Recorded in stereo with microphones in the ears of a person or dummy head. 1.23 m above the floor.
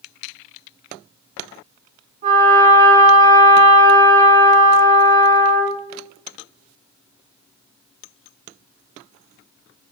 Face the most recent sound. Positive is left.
turn(degrees=-45)  # may be behind; listen again after turning